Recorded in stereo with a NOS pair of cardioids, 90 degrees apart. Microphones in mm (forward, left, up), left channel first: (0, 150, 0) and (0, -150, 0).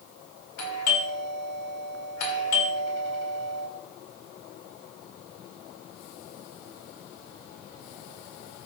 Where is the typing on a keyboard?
No typing on a keyboard in this recording.